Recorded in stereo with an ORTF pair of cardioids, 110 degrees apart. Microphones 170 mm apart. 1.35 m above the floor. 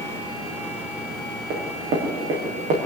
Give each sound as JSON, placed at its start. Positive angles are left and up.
{"t": 1.5, "sound": "running footsteps", "azimuth_deg": -70, "distance_m": 7.0}